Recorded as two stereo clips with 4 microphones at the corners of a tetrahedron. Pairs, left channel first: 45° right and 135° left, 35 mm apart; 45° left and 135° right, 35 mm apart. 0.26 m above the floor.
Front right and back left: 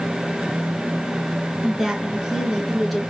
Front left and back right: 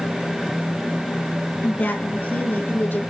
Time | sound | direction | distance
1.6 | a woman speaking | 60° left | 4 m